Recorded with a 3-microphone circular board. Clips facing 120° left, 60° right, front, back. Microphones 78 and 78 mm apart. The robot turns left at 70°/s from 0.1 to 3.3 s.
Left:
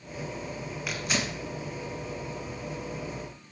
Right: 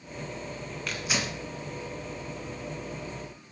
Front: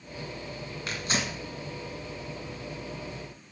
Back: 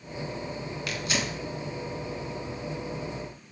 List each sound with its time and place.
0.9 s tearing paper: 45° left, 1.4 m; by 1.4 s 5° left, 1.4 m